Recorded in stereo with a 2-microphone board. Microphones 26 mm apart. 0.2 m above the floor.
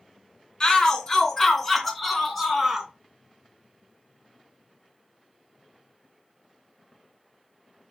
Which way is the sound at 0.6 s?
30° left (ahead or behind).